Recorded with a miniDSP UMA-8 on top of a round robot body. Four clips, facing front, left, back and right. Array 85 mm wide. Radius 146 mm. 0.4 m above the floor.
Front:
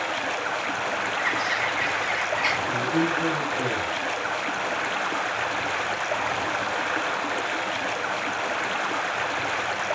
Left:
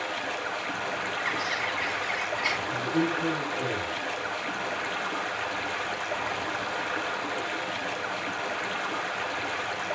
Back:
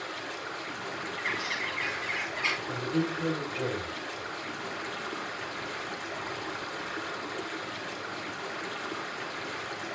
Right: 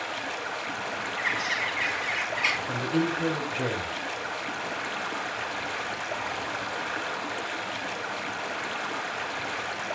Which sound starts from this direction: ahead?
Running water, at 0.0 s.